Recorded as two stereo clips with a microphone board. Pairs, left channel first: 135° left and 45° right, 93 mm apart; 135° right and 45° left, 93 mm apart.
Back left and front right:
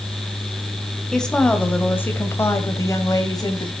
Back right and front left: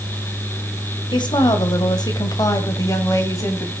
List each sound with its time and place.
1.1 s a woman speaking: 140° right, 1.8 m; by 3.7 s 170° left, 2 m